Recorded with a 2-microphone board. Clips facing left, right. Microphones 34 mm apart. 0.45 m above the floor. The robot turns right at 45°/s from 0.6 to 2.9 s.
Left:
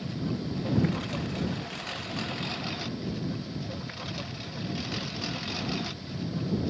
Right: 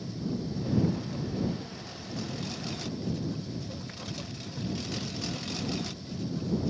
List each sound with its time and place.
0.0 s a lawn mower: 55° left; by 6.7 s 155° left